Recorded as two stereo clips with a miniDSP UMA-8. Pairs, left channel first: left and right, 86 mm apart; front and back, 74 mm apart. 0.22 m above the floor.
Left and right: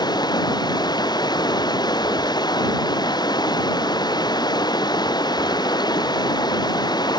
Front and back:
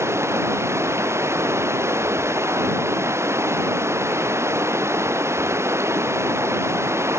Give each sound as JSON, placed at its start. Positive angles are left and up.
{"t": 0.0, "sound": "running water", "azimuth_deg": 125}